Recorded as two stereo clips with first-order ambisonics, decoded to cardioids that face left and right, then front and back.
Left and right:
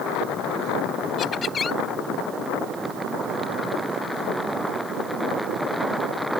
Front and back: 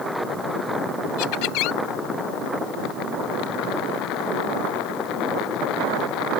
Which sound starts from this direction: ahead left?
Laughter, at 1.2 s.